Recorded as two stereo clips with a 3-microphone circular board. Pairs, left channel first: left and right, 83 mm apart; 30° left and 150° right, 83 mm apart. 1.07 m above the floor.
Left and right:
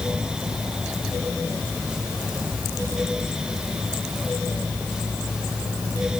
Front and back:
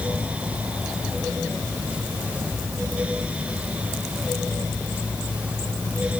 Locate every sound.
Only background noise.